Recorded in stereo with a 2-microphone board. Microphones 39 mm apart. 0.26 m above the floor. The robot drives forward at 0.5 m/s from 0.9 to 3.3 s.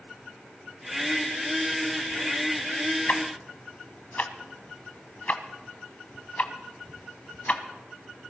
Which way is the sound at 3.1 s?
50° left (ahead or behind).